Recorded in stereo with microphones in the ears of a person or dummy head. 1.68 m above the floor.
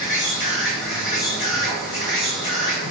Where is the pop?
No pop in this recording.